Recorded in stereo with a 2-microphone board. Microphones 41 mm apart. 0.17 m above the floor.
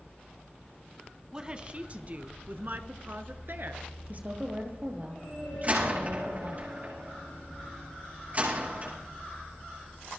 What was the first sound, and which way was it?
A woman speaking, 20° right (ahead or behind).